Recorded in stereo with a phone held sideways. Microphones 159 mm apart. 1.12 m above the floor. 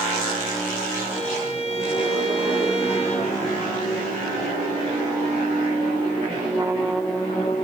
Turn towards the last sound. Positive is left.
turn(degrees=45)  # may be behind; listen again after turning